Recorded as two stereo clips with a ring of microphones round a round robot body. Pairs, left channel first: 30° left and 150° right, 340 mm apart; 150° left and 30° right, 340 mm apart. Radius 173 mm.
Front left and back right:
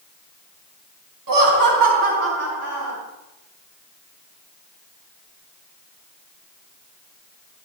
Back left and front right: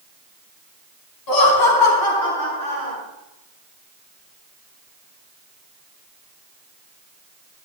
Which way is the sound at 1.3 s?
Straight behind.